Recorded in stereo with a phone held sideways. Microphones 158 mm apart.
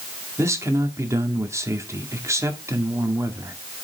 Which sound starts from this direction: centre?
A man speaking, at 0.4 s.